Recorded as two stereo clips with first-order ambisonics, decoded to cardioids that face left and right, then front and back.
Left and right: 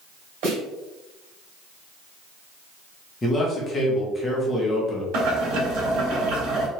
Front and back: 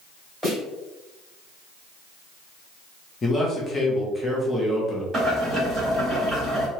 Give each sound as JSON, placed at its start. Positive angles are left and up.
{"t": 0.4, "sound": "a snare drum", "azimuth_deg": -90, "distance_m": 2.0}
{"t": 3.2, "sound": "a man speaking", "azimuth_deg": 45, "distance_m": 0.8}
{"t": 5.1, "sound": "boiling", "azimuth_deg": -105, "distance_m": 1.7}